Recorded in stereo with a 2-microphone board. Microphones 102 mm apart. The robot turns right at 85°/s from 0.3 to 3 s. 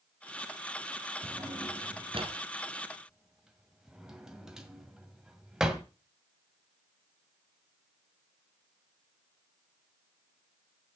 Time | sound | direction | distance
1.2 | a drawer | 20° right (ahead or behind) | 1.9 m